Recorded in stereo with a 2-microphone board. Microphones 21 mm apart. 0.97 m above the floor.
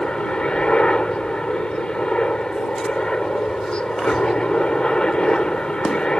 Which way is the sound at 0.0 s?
50° left (ahead or behind).